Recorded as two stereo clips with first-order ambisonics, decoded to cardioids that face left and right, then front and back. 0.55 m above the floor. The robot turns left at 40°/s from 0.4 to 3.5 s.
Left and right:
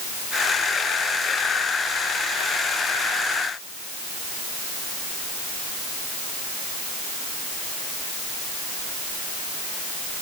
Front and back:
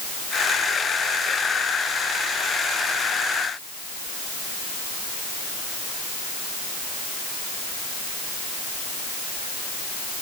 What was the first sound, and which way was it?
Only background noise.